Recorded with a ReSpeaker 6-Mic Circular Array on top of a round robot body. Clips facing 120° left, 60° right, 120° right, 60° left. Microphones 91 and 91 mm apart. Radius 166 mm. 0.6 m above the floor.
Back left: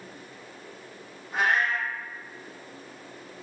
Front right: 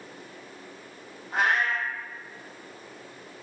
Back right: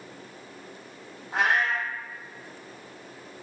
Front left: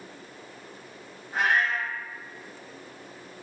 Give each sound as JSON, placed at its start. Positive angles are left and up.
{"t": 1.3, "sound": "a cat meowing", "azimuth_deg": -110, "distance_m": 1.4}